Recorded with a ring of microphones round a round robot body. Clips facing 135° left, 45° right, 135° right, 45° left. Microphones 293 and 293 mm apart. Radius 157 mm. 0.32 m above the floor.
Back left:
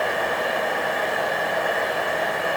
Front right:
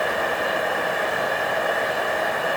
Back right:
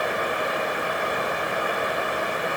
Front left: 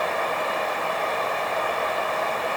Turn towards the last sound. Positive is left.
No sound to turn to.